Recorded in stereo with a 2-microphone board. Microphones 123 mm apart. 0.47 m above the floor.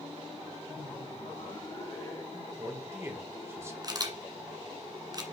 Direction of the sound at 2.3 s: 20° right (ahead or behind).